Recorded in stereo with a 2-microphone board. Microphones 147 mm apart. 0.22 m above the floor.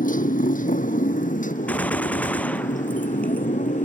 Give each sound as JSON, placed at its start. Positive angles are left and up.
{"t": 0.0, "sound": "a motorcycle", "side_deg": 65}
{"t": 1.7, "sound": "a gunshot", "side_deg": 10}